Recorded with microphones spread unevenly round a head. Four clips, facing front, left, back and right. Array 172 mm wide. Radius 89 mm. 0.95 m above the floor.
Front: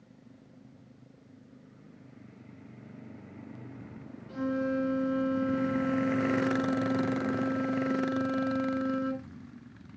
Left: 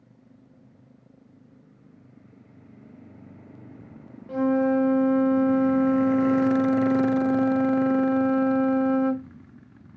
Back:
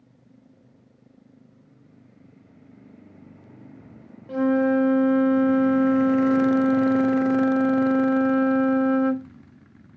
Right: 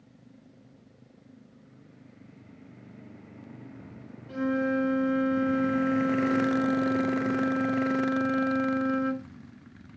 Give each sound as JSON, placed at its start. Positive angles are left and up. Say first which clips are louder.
{"t": 4.3, "sound": "a flute", "louder": "left 6 dB, back 11 dB", "azimuth_deg": 155, "distance_m": 0.8}